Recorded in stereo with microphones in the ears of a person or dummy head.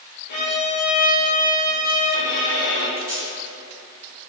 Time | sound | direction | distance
0.3 | a violin | 50° left (ahead or behind) | 0.9 m
3.0 | tape being pulled | 20° right (ahead or behind) | 1.3 m